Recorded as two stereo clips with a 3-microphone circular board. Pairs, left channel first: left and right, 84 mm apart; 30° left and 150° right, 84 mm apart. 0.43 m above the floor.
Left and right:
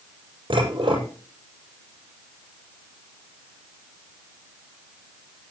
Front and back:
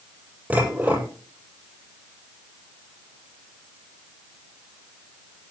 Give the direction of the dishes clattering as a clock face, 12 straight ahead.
3 o'clock.